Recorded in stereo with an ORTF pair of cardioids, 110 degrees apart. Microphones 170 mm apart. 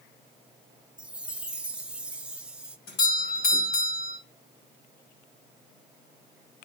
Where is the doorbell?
65° left, 3 m.